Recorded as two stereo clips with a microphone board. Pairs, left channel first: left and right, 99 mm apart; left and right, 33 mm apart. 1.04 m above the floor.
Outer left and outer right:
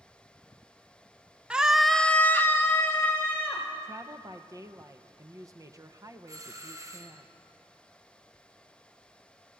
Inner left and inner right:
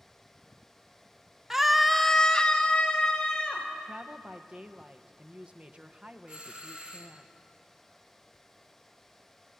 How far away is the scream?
About 0.8 m.